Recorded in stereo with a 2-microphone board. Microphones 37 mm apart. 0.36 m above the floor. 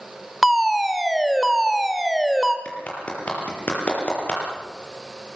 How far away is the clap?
About 7 m.